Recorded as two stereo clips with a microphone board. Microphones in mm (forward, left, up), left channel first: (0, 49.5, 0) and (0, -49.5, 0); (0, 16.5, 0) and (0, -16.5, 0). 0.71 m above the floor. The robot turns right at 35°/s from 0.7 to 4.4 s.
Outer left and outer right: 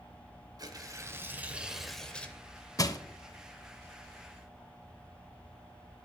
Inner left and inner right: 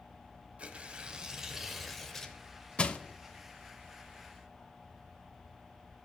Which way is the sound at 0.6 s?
40° right.